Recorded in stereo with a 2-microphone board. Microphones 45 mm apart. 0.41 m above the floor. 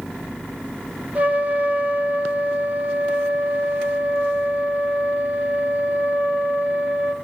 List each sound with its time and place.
1.1 s a trumpet: 30° right (ahead or behind), 1.6 m